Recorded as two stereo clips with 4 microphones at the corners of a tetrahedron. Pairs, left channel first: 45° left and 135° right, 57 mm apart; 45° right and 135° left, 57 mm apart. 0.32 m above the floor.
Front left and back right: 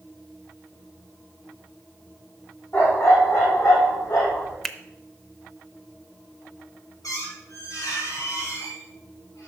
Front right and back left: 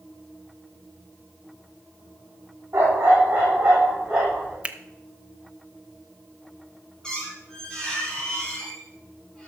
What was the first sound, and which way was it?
A dog barking, 85° left.